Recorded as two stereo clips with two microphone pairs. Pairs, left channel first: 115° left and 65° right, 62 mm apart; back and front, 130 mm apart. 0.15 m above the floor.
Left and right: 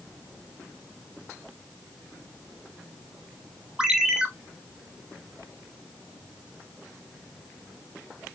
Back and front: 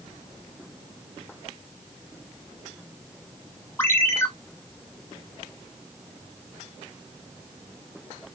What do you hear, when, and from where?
3.8 s a ringtone: 135° right, 0.7 m